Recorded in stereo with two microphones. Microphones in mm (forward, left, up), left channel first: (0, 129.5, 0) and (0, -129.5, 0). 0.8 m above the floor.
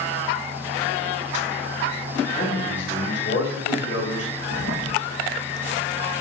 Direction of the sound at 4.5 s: 75° left (ahead or behind).